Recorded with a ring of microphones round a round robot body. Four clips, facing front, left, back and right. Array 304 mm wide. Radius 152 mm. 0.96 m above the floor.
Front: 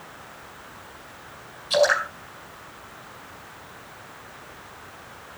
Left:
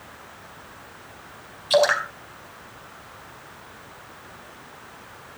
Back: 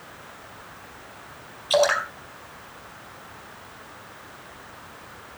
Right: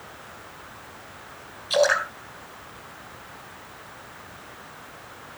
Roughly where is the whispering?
I don't hear whispering.